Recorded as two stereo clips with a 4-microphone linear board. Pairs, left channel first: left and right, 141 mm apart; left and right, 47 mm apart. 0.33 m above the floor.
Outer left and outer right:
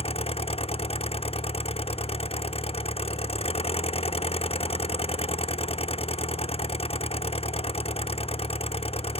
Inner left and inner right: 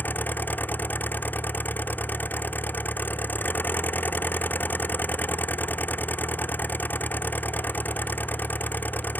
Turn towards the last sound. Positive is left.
turn(degrees=45)  # may be behind; listen again after turning